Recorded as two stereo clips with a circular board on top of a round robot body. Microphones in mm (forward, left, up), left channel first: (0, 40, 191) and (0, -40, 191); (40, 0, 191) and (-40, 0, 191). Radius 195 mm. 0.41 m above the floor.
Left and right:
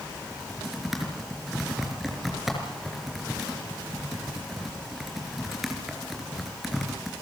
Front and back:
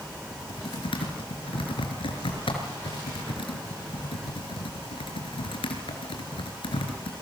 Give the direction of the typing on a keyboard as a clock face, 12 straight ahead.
12 o'clock.